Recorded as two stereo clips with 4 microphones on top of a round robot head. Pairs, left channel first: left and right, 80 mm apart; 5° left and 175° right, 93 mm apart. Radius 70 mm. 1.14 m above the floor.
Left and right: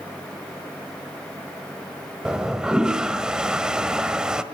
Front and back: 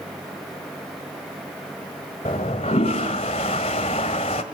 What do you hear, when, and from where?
2.2 s a toilet flushing: 10° right, 1.3 m